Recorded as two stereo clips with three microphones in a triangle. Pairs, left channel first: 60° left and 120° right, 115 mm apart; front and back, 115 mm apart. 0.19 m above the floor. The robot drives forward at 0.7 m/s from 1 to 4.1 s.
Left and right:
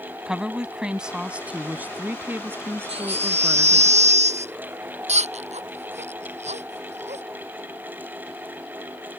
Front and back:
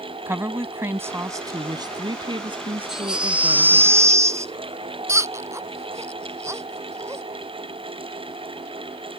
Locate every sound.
0.3 s a woman speaking: 170° left; by 3.9 s 175° left
2.9 s a baby crying: 95° right; by 7.2 s 115° right